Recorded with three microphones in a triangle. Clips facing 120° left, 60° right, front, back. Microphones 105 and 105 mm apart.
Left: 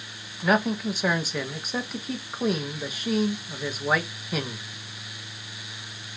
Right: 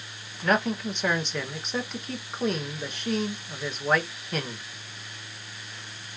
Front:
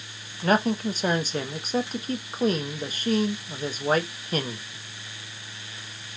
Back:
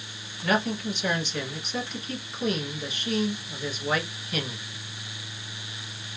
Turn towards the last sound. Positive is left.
turn(degrees=35)